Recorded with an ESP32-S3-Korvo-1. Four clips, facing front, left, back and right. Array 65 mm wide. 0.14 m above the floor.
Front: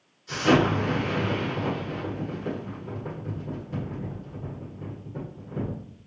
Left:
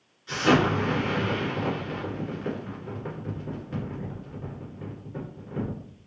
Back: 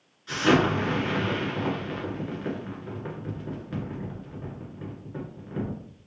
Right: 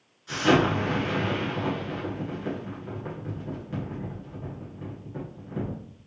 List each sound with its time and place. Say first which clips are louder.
0.3 s an explosion: even, even; 170° left, 2 m